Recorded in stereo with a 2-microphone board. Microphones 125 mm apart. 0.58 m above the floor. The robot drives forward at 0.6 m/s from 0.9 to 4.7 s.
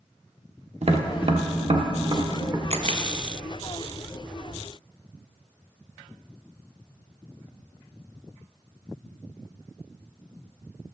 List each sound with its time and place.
0.8 s tapping: 55° right (ahead or behind), 0.9 m; by 2.6 s 35° right (ahead or behind), 1.3 m
2.7 s a camera shutter: 60° right (ahead or behind), 1.0 m; by 3.0 s 65° right (ahead or behind), 0.9 m